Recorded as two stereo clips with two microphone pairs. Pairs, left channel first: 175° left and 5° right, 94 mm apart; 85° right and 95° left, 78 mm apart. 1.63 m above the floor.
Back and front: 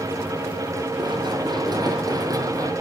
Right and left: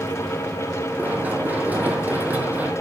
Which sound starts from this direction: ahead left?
Running footsteps, at 1.0 s.